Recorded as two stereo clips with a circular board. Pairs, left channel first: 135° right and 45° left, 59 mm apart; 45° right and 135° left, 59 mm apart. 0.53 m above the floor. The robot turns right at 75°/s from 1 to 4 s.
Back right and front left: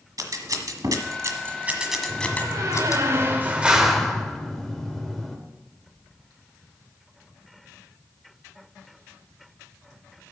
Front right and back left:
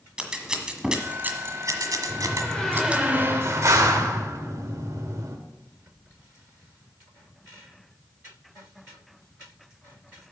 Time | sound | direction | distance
0.2 | scissors | 60° left | 1.4 m
2.1 | a door slam | 5° right | 1.4 m